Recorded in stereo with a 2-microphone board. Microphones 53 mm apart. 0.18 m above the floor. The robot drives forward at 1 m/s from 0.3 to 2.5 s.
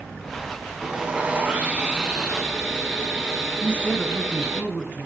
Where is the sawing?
20° right (ahead or behind), 0.9 m; by 4.6 s 10° right (ahead or behind), 1.3 m.